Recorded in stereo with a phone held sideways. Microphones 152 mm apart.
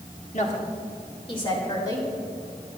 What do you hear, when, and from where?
0.3 s a woman speaking: 55° left (ahead or behind), 1.8 m; by 2.1 s 25° left (ahead or behind), 3 m